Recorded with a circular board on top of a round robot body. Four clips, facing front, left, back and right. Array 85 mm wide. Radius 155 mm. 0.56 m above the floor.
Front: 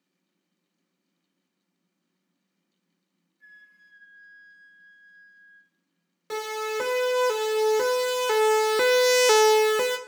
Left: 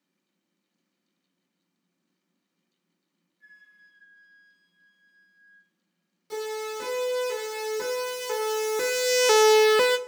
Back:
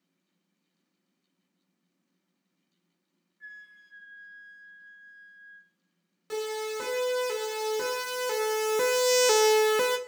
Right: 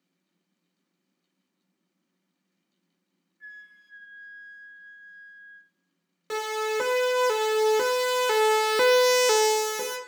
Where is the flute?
125° right, 2.5 m.